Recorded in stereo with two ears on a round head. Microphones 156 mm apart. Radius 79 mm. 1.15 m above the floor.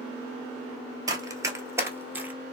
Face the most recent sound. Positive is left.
turn(degrees=-10)  # may be behind; listen again after turning